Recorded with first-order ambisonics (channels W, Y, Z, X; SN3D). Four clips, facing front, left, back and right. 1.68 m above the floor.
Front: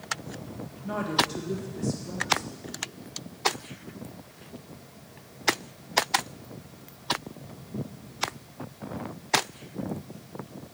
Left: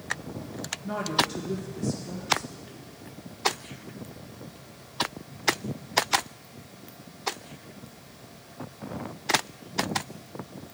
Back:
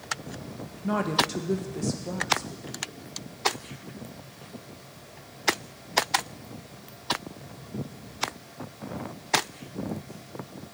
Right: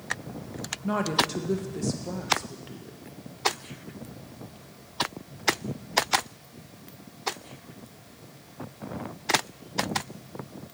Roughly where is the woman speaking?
Behind right.